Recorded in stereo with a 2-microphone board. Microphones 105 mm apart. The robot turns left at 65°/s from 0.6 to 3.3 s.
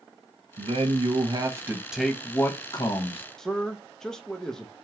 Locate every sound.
0.6 s a man speaking: 90° right, 0.8 m; by 3.2 s 100° left, 0.8 m
3.4 s a man speaking: 5° left (ahead or behind), 0.5 m